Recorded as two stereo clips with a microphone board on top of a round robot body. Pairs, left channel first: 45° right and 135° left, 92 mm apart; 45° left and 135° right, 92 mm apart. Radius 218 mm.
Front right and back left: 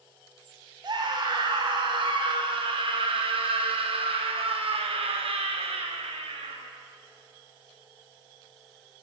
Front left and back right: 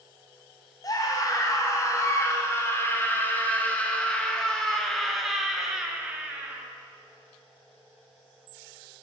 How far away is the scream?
About 4.5 m.